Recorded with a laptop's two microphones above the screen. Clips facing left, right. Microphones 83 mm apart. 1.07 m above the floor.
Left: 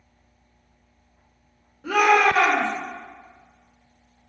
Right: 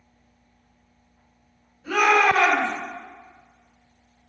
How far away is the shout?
About 1.0 m.